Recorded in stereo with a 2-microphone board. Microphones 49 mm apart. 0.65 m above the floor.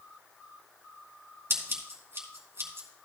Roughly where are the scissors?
Right.